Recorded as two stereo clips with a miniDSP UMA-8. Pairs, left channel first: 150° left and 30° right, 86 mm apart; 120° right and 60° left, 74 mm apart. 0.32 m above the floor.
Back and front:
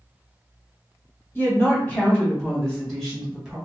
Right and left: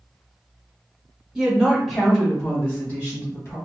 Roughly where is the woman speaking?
Behind left.